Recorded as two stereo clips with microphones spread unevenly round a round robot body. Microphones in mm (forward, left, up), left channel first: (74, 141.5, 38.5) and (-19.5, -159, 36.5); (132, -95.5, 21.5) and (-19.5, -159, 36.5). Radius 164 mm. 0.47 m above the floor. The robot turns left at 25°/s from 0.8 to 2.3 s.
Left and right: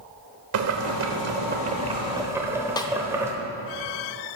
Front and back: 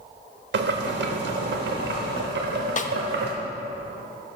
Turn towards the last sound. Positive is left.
turn(degrees=-5)